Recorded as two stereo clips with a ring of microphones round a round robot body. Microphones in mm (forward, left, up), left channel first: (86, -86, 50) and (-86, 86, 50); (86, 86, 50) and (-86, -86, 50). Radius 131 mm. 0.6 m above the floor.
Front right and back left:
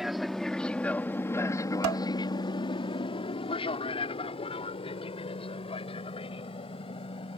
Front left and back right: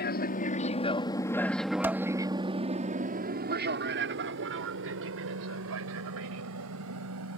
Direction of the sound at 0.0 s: 45° left.